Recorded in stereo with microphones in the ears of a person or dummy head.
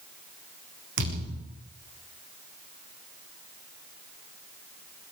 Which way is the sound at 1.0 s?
70° right (ahead or behind).